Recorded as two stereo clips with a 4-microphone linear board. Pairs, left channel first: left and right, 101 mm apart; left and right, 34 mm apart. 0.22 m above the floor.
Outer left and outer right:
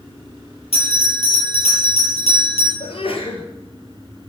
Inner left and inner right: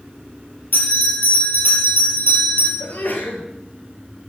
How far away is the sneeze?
About 4.5 m.